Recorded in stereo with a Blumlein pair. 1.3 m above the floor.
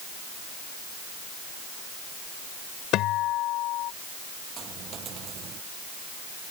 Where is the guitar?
35° left.